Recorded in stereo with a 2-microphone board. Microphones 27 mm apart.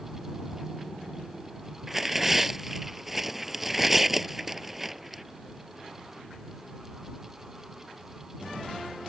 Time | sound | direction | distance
1.9 | tearing paper | 5° right (ahead or behind) | ?